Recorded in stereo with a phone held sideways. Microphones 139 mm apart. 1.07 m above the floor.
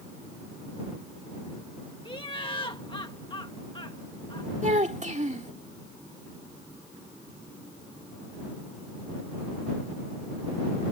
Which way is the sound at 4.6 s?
55° right (ahead or behind).